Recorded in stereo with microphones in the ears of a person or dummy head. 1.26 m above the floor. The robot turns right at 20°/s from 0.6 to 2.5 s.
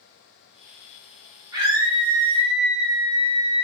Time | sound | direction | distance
1.5 | a scream | 15° right (ahead or behind) | 1.0 m